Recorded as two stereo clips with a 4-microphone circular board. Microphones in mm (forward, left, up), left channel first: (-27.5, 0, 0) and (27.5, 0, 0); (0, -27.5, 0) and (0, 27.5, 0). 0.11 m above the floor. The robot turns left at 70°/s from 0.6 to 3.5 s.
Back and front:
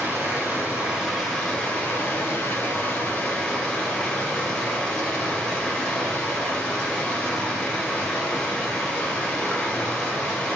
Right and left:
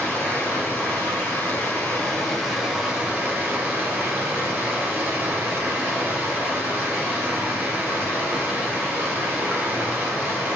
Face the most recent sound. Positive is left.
turn(degrees=115)